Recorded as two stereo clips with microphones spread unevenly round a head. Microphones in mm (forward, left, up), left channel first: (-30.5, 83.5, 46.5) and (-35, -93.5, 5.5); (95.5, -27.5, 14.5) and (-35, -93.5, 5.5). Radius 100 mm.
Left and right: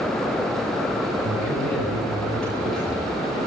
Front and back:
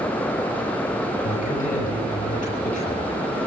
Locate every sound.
1.2 s a man speaking: 5° left, 8 m